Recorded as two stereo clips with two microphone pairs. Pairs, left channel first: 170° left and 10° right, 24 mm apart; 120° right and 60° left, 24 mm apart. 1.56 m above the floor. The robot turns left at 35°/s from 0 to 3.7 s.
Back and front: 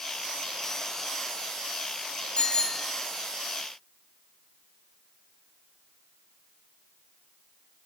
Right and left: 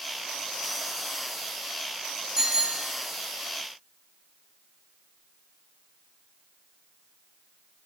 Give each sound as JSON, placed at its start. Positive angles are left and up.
{"t": 2.4, "sound": "a bicycle bell", "azimuth_deg": 125, "distance_m": 2.5}